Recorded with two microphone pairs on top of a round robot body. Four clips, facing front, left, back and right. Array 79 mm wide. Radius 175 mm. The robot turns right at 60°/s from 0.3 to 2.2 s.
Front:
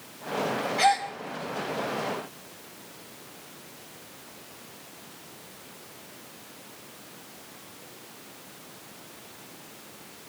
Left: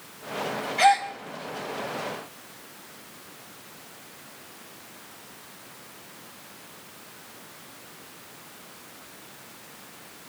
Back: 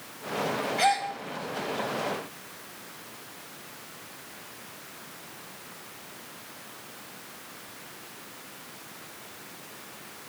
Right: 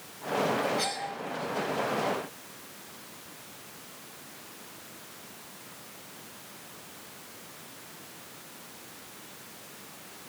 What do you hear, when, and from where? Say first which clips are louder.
0.8 s a gasp: left 14 dB, front 2 dB; 85° left, 4.5 m; by 1.1 s 105° left, 4.5 m